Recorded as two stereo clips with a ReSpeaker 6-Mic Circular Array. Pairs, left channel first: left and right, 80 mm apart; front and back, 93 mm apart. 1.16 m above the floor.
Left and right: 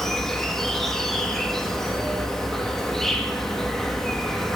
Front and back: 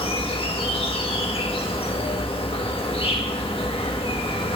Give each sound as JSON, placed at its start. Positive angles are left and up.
{"t": 0.0, "sound": "an insect", "azimuth_deg": 5, "distance_m": 1.6}